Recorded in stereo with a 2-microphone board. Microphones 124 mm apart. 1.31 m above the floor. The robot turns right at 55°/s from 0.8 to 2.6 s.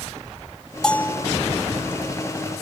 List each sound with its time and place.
0.8 s a bell: 5° left (ahead or behind); by 1.2 s 25° left (ahead or behind)